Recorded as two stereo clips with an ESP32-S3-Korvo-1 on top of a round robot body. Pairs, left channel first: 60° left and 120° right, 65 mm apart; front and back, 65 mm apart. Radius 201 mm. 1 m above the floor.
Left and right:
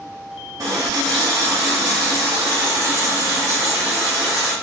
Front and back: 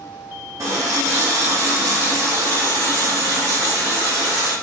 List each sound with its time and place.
0.6 s a running tap: 150° right, 0.8 m